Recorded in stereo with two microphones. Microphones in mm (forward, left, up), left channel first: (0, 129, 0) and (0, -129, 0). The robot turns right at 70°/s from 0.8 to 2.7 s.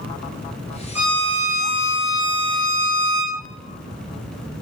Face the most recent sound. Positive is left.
turn(degrees=115)